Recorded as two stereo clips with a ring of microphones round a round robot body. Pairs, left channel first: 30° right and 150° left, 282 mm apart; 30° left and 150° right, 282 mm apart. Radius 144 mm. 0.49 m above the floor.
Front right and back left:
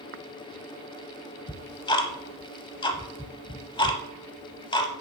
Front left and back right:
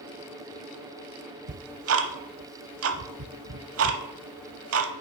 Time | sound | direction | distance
1.5 | ticking | 105° right | 0.7 m